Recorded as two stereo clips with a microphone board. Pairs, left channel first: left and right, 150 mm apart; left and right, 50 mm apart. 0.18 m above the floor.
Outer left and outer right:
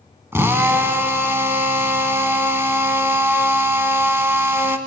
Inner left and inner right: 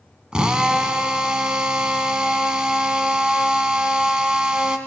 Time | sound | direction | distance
0.3 | a drill | 15° right (ahead or behind) | 1.2 m